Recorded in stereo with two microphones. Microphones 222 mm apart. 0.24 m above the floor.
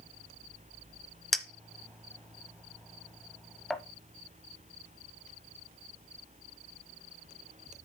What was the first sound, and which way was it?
A clink, centre (ahead or behind).